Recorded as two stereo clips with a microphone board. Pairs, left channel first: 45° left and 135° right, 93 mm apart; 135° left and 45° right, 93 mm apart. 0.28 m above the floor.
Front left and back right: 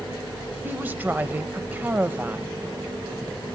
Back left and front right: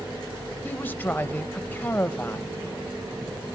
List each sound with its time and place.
0.6 s a woman speaking: straight behind, 0.9 m